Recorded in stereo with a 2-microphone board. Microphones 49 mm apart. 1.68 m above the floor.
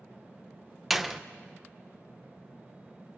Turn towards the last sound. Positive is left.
turn(degrees=-5)  # may be behind; listen again after turning